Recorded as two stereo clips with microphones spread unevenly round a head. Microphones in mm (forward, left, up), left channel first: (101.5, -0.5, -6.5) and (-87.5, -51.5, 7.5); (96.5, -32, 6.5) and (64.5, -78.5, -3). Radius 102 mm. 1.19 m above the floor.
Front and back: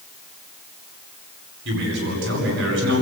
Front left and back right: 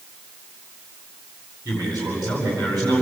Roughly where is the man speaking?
Behind left.